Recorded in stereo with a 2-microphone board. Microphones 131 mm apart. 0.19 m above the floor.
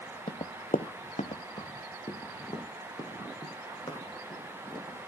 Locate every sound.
0.3 s running footsteps: 50° left (ahead or behind), 0.8 m; by 5.0 s 25° left (ahead or behind), 6 m